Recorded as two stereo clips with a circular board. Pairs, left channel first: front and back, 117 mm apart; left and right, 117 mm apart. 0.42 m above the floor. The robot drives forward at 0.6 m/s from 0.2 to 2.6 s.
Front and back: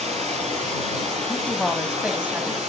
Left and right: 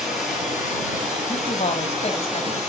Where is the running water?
175° right, 8.5 m.